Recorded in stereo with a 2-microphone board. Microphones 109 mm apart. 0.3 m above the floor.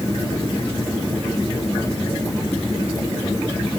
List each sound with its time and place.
Only background noise.